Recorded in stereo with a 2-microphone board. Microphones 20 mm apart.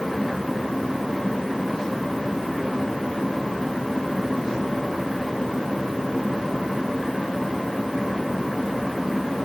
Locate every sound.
Only background noise.